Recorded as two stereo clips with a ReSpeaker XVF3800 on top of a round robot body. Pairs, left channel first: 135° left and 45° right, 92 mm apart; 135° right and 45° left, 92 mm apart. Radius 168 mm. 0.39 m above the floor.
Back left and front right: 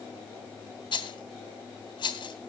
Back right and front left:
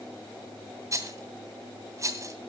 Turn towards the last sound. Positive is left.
turn(degrees=100)